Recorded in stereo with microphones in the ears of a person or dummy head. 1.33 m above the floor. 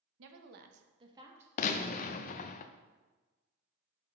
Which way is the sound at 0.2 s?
80° right.